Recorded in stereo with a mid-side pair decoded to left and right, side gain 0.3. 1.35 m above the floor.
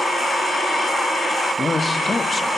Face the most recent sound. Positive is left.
turn(degrees=35)